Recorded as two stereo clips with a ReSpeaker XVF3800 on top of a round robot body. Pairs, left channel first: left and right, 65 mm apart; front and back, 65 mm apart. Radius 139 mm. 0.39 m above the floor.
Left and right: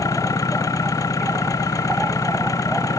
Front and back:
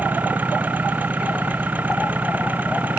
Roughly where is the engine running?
Behind left.